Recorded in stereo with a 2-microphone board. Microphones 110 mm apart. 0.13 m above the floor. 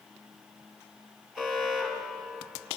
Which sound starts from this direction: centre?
An alarm, at 1.4 s.